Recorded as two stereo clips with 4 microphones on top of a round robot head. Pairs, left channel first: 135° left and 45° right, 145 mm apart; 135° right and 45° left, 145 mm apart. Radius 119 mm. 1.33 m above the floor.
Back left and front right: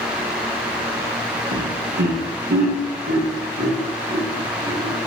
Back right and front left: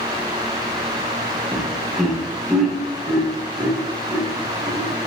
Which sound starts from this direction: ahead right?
Laughter, at 1.5 s.